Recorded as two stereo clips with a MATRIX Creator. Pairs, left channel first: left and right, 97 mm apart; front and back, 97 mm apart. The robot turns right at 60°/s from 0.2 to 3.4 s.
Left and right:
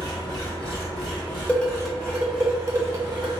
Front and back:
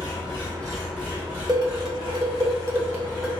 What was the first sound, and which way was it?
An engine running, 50° left.